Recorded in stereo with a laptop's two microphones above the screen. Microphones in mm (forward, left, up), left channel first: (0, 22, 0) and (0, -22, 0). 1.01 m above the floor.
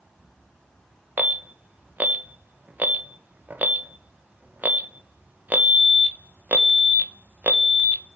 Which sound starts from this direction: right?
An alarm, at 1.2 s.